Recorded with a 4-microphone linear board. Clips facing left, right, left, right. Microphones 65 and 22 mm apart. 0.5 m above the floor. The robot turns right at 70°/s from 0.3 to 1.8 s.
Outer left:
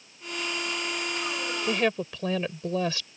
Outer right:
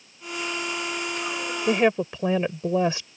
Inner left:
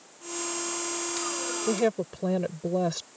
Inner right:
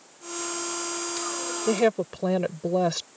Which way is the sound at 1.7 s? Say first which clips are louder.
Outer right 6 dB, inner right 4 dB; 30° right (ahead or behind).